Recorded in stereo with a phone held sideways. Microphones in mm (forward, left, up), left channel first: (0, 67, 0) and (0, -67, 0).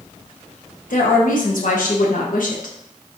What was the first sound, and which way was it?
A woman speaking, 90° left.